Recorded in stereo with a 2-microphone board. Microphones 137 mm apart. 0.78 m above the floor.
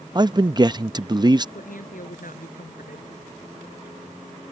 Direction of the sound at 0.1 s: 30° right (ahead or behind).